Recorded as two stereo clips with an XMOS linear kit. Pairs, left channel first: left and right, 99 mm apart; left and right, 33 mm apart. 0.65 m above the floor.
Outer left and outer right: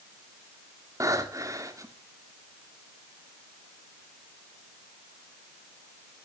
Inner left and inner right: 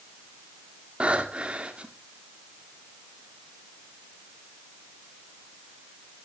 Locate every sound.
1.0 s breathing: 35° right (ahead or behind), 1.6 m